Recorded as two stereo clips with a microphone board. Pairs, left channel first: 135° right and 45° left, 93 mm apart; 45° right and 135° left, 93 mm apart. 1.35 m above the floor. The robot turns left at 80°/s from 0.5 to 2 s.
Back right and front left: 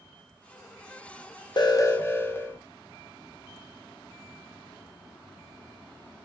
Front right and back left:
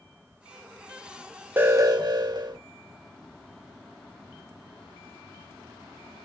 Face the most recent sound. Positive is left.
turn(degrees=160)